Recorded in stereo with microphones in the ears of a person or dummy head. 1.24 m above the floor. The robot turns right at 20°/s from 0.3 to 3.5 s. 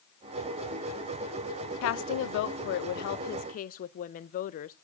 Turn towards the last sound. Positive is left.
turn(degrees=140)